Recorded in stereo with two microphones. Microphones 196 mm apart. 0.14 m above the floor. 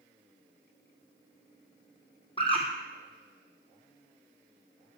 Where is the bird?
30° left (ahead or behind), 1.8 m.